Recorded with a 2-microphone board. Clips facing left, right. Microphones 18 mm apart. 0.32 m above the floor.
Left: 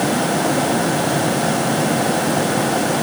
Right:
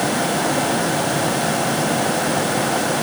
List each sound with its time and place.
Only background noise.